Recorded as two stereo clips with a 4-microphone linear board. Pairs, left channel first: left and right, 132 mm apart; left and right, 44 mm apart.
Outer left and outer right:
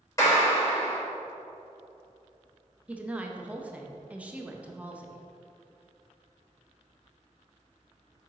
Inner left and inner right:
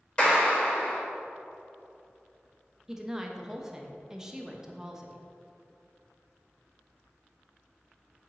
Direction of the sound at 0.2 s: 25° left (ahead or behind).